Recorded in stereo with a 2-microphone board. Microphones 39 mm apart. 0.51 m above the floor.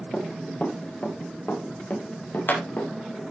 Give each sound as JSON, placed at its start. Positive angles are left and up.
{"t": 0.1, "sound": "running footsteps", "side_deg": 35, "distance_m": 5.5}